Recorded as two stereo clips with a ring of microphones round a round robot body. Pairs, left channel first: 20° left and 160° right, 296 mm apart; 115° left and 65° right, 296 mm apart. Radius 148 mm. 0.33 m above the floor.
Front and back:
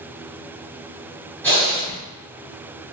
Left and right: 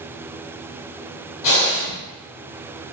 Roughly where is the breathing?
Left.